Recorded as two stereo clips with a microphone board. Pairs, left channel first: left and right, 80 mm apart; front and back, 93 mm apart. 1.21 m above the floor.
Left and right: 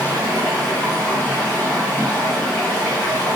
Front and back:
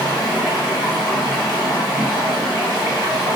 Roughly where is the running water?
Ahead left.